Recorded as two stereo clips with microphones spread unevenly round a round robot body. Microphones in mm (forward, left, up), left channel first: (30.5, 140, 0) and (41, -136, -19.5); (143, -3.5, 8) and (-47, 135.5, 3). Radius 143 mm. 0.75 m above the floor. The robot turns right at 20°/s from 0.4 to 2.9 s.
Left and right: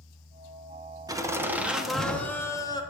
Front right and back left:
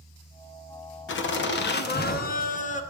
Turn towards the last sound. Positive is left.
turn(degrees=20)